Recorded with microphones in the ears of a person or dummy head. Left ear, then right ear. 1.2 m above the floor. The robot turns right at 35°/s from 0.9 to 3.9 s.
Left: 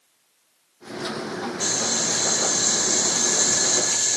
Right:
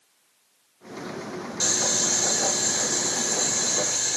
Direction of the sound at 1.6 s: 20° right.